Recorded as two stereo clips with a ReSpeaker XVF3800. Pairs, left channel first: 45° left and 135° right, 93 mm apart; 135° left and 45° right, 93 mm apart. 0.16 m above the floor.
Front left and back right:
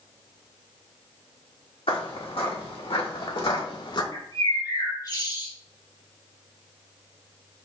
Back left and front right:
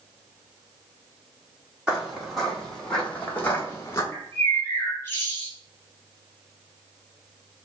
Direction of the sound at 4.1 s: 75° left.